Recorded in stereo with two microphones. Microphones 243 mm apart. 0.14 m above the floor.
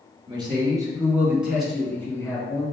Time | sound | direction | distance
0.3 | a man speaking | 20° right (ahead or behind) | 1.8 m